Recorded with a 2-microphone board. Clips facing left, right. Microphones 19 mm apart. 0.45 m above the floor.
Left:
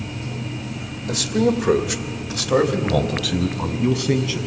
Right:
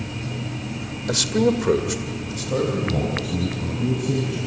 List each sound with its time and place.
1.1 s a man speaking: 25° right (ahead or behind), 1.4 m; by 4.4 s 70° left (ahead or behind), 3.5 m